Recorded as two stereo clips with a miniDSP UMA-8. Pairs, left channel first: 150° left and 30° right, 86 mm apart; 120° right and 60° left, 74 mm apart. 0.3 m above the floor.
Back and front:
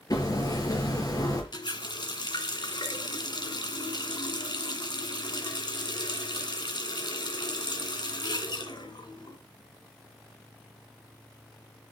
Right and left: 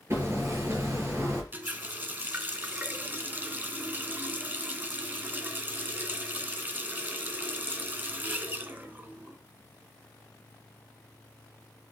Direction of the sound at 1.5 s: 125° left.